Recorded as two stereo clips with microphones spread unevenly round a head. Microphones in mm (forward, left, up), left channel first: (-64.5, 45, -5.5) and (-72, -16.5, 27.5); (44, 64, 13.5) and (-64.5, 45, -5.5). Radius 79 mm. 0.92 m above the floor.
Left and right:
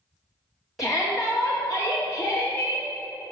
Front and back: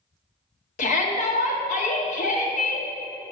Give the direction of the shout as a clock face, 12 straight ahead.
12 o'clock.